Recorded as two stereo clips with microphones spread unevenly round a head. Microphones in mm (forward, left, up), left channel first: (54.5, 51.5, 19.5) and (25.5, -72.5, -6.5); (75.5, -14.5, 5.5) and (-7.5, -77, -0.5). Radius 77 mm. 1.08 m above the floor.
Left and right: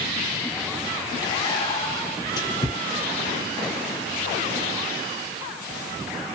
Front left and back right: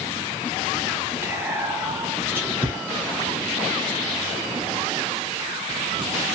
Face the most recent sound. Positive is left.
turn(degrees=145)